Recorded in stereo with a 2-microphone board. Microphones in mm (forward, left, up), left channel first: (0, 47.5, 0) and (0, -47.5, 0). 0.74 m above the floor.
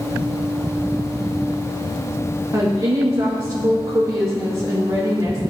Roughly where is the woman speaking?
Right.